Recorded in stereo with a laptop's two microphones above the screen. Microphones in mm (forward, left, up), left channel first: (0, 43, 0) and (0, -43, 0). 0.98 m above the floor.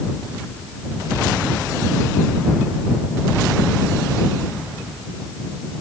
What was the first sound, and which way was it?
Only background noise.